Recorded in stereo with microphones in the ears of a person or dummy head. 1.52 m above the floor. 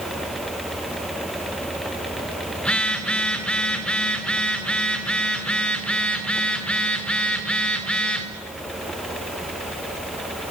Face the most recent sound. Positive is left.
turn(degrees=0)  # may be behind; listen again after turning